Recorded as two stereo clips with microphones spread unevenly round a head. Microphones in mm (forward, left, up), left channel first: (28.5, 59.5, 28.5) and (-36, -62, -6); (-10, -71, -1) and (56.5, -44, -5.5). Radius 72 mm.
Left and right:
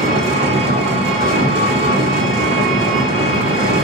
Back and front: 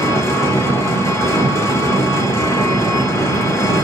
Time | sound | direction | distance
0.0 | an engine running | 160° right | 0.9 m